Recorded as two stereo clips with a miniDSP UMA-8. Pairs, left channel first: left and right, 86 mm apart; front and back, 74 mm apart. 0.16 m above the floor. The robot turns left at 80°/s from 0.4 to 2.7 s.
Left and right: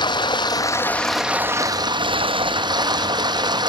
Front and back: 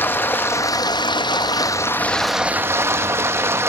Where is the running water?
60° left, 0.7 m; by 3.7 s 125° right, 0.7 m.